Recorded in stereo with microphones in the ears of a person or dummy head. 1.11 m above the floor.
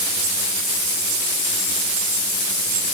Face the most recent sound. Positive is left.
No sound to turn to.